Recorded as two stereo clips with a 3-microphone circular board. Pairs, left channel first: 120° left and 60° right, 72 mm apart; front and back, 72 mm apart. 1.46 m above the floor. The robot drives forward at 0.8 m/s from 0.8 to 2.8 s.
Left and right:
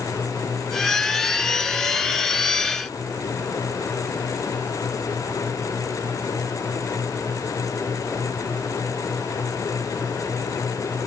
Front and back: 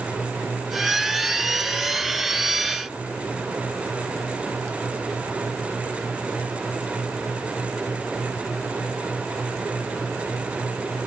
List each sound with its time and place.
Only background noise.